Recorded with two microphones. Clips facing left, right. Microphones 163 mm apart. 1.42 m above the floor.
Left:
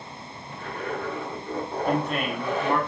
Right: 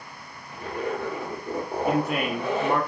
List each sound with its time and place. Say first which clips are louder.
0.5 s a zipper: right 3 dB; 25° right (ahead or behind), 1.0 m
1.9 s a man speaking: right 2 dB; 10° right (ahead or behind), 0.8 m